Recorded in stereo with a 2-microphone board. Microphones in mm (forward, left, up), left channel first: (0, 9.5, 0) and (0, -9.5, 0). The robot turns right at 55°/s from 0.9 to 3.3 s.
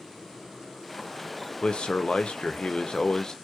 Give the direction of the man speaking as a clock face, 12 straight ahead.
10 o'clock.